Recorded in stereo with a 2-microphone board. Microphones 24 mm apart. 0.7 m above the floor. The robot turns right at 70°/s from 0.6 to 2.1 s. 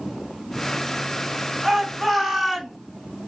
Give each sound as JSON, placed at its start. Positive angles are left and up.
{"t": 1.6, "sound": "a shout", "azimuth_deg": -40, "distance_m": 1.0}